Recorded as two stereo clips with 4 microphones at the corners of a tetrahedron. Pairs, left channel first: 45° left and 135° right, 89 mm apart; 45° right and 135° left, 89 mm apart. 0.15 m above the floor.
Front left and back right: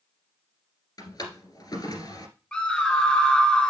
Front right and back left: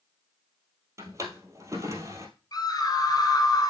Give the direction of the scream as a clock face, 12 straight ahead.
1 o'clock.